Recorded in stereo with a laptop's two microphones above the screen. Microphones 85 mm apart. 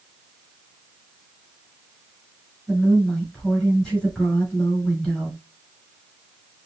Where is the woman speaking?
20° left (ahead or behind), 3 m.